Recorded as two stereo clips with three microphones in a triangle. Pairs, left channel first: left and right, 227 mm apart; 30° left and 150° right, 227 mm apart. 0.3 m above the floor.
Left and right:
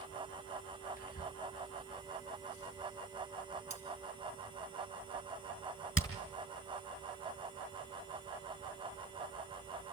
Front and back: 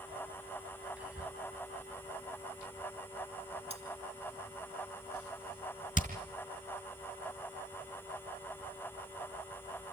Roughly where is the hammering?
Left.